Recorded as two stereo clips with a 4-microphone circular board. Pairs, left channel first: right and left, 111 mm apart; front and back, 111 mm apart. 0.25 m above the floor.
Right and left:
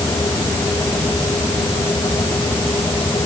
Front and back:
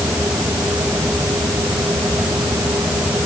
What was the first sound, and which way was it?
Only background noise.